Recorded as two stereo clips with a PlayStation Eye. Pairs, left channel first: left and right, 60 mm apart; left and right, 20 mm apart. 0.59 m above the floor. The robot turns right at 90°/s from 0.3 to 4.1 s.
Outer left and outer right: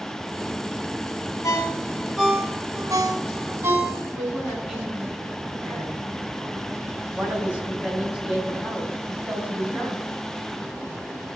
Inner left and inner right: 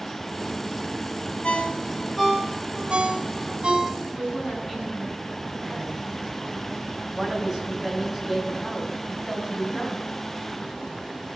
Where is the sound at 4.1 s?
10° right (ahead or behind), 6.5 m.